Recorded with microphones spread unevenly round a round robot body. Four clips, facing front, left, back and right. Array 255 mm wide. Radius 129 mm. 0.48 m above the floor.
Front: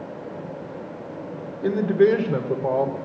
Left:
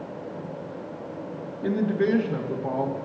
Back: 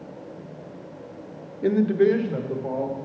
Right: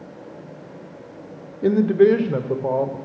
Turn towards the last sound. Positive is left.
turn(degrees=-45)